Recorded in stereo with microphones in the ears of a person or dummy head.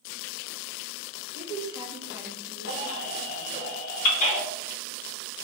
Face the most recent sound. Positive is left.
turn(degrees=65)  # may be behind; listen again after turning